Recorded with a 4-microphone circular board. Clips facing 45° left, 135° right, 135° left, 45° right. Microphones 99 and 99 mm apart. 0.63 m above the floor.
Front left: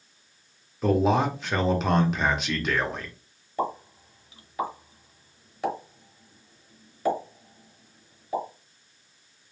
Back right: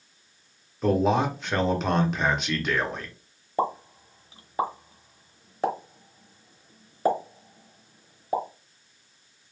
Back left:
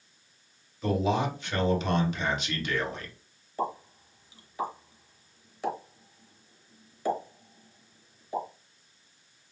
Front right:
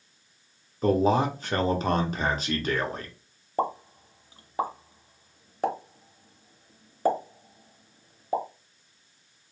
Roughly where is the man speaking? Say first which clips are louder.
Even, front right 5 dB; ahead right.